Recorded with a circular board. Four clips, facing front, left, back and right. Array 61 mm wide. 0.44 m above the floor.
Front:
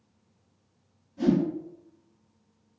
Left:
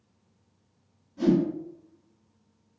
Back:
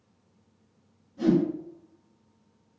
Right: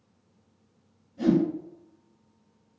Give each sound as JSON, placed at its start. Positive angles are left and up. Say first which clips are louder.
{"t": 1.2, "sound": "a whoosh", "louder": "even, back 1 dB", "azimuth_deg": 75, "distance_m": 2.0}